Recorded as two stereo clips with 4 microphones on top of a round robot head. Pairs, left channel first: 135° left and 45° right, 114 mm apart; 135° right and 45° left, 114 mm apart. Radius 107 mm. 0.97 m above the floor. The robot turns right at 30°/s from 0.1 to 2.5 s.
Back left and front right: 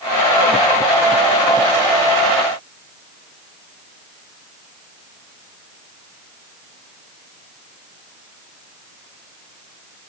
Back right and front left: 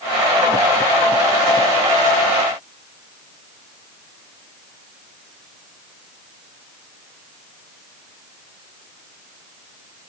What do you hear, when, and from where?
Only background noise.